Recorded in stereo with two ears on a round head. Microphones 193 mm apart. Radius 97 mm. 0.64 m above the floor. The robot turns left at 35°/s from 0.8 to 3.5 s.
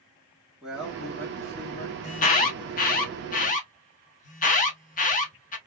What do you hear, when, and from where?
0.6 s a man speaking: 175° right, 1.5 m; by 1.9 s 145° left, 1.5 m
2.0 s an alarm: 35° left (ahead or behind), 0.9 m